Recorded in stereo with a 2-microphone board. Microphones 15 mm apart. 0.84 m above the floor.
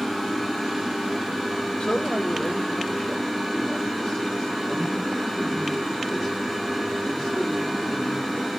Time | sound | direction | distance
1.8 | a man speaking | 75° left (ahead or behind) | 1.1 m